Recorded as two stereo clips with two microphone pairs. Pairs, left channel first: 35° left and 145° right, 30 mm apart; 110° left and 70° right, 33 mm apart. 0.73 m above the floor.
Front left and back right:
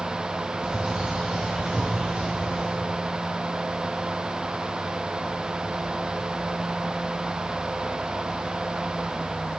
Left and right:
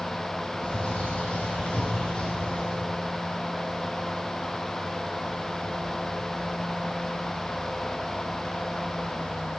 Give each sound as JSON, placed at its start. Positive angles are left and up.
{"t": 0.6, "sound": "a bird", "azimuth_deg": 165, "distance_m": 4.5}